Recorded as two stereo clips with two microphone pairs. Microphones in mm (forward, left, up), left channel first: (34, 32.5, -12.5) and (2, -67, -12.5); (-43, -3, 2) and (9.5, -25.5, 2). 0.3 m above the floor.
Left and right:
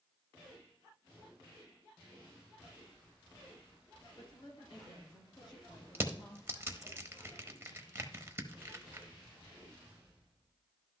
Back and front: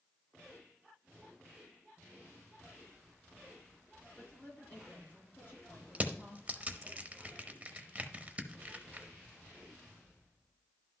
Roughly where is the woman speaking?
Left.